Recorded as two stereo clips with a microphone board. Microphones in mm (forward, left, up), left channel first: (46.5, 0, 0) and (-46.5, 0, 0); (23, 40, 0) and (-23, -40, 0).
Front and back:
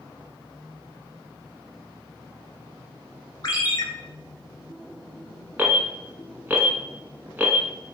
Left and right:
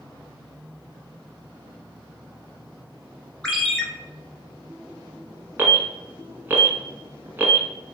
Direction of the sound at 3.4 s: 25° right.